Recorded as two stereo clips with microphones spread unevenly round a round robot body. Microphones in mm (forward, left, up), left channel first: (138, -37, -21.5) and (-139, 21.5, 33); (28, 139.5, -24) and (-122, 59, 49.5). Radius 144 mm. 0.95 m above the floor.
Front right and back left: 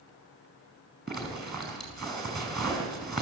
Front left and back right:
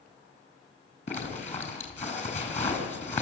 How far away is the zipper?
About 5 m.